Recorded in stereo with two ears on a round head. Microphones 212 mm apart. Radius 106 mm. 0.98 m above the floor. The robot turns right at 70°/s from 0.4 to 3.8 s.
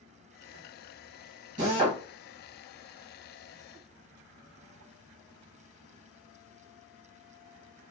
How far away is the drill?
About 1.2 m.